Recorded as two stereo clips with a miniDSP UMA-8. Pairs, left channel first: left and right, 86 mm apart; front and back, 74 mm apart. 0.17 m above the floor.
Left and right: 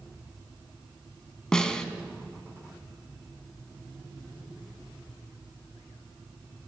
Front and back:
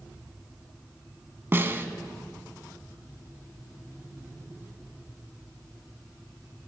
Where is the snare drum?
165° left, 0.6 m.